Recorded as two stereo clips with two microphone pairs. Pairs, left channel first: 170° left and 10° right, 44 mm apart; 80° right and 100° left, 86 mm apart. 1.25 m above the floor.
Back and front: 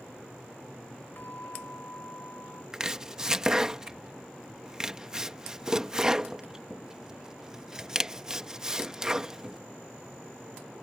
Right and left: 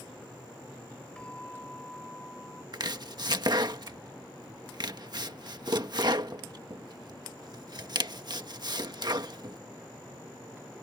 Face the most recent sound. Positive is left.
turn(degrees=60)